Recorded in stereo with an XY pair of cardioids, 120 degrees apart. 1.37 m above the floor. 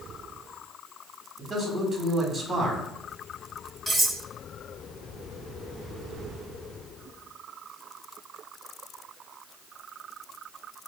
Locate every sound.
1.4 s a man speaking: 20° right, 1.8 m
3.9 s cutlery clinking: 15° right, 1.9 m